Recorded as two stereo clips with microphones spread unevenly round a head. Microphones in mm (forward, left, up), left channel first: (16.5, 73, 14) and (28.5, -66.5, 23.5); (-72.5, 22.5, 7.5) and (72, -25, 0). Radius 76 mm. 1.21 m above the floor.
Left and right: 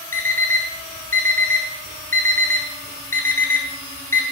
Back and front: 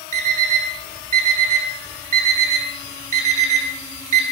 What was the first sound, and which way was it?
An alarm clock, 20° left.